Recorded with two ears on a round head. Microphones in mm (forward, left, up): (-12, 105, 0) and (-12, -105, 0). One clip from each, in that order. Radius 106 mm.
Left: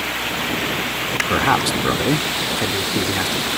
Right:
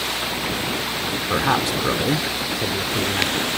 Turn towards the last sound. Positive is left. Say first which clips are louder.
# left 2 dB
turn(degrees=15)  # may be behind; listen again after turning